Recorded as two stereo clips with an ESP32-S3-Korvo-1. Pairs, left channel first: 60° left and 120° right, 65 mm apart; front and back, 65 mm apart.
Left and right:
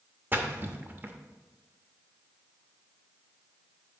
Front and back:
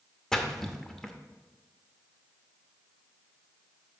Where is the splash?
80° right, 0.7 m.